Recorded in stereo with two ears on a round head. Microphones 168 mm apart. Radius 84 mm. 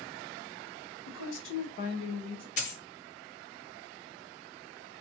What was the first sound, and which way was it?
A woman speaking, 65° left (ahead or behind).